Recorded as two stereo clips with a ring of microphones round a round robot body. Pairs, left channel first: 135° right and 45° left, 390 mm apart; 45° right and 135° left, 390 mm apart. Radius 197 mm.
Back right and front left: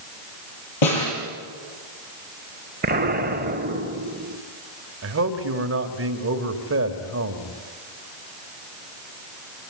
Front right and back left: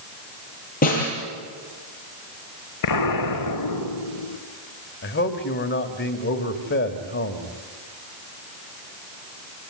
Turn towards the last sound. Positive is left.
turn(degrees=5)